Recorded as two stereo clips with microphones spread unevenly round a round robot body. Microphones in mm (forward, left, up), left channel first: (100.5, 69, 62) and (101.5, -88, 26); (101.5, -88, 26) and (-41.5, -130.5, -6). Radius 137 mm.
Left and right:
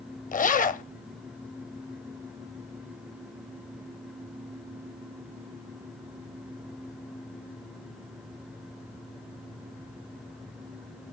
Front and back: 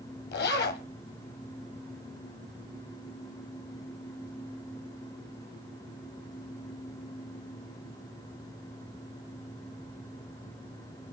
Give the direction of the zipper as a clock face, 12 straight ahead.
10 o'clock.